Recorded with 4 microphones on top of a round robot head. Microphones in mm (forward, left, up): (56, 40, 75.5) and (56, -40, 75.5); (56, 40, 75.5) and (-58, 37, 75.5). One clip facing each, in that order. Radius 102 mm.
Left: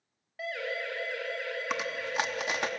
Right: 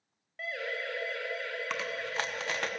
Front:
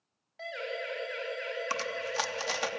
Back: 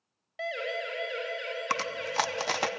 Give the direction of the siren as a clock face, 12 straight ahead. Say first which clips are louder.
Left 2 dB, back 4 dB; 6 o'clock.